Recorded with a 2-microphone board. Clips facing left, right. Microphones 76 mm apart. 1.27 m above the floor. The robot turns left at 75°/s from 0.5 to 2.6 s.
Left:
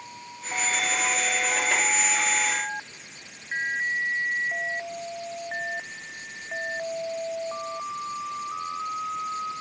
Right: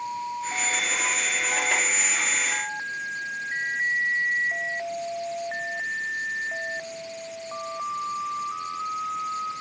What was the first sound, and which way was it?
Only background noise.